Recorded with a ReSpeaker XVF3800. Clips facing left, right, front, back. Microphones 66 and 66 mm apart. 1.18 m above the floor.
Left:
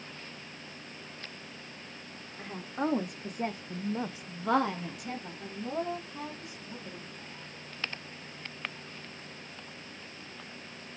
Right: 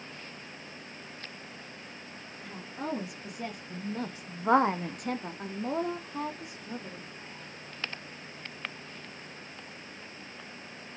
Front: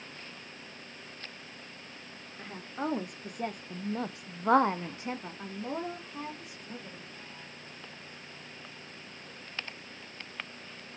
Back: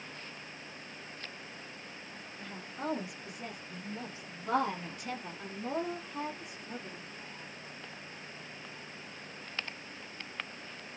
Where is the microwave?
I don't hear a microwave.